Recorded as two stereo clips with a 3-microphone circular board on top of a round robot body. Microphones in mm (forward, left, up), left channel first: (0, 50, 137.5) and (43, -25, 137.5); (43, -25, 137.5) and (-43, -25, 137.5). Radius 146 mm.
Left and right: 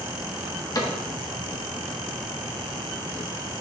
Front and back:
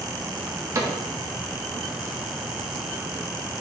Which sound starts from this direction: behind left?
A cupboard door, at 0.8 s.